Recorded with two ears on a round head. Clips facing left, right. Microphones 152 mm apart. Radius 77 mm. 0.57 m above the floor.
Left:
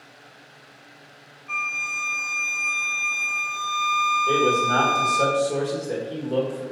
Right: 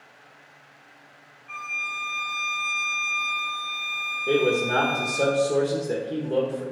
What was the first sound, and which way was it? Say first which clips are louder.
A violin: left 3 dB; 55° left (ahead or behind).